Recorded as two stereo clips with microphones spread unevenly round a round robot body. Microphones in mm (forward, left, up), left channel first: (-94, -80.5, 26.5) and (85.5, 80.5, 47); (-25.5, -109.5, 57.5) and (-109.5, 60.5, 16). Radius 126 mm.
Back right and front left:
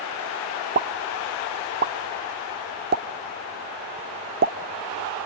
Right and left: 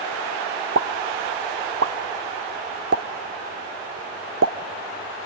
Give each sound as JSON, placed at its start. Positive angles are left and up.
{"t": 0.8, "sound": "a pop", "azimuth_deg": 75, "distance_m": 0.7}